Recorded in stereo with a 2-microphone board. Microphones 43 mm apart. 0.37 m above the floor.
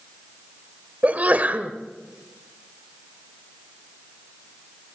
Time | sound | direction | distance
1.0 | a sneeze | 40° right (ahead or behind) | 1.2 m